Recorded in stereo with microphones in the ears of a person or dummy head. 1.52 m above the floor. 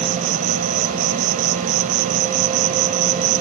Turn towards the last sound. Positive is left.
turn(degrees=-50)  # may be behind; listen again after turning